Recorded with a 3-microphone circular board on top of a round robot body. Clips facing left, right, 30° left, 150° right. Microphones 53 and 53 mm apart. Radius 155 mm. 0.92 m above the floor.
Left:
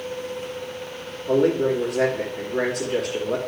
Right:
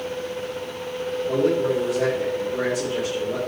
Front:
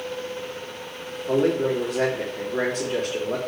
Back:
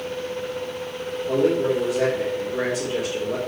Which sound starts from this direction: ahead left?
A man speaking, at 1.3 s.